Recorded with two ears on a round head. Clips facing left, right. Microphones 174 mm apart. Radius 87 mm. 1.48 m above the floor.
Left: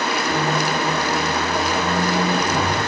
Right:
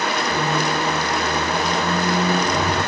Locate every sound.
0.3 s a squeak: centre (ahead or behind), 1.0 m